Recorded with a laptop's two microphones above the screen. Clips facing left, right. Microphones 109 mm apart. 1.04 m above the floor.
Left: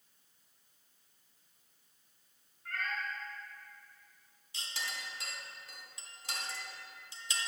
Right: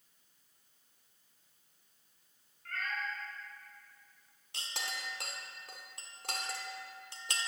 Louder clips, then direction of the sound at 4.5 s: Right 1 dB; 55° right (ahead or behind).